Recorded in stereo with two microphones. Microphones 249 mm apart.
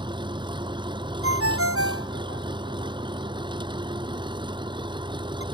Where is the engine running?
20° right (ahead or behind).